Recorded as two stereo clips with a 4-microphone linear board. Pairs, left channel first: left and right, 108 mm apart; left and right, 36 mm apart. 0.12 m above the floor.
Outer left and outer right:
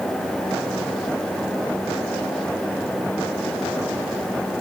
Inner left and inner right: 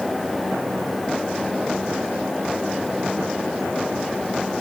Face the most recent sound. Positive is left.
No sound to turn to.